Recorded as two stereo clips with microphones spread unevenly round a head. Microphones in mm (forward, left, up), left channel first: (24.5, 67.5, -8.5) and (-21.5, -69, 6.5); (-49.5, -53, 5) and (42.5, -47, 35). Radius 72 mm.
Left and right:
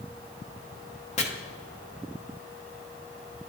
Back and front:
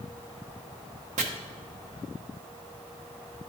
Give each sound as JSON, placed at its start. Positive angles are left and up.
{"t": 1.2, "sound": "chopping", "azimuth_deg": 30, "distance_m": 1.0}